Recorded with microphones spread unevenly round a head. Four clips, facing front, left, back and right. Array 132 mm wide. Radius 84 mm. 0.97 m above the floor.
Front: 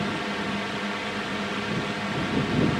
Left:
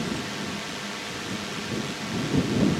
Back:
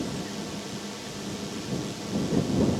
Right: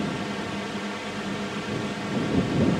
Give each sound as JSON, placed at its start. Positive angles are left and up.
{"t": 0.0, "sound": "a drone", "azimuth_deg": -10}